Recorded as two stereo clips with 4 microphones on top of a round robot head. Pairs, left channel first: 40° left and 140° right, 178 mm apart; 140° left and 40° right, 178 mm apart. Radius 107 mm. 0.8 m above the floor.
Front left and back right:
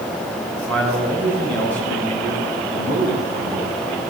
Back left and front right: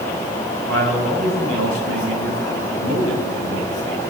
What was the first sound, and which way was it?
A man speaking, 40° right.